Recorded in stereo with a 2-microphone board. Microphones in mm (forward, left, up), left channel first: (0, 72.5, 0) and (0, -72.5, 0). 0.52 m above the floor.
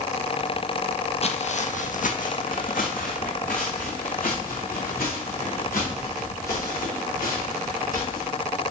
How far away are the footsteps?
About 0.7 m.